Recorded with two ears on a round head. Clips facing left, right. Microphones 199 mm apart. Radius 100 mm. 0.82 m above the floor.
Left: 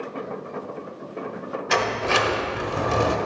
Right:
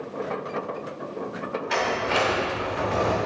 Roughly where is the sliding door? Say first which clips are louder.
Left 3 dB; left.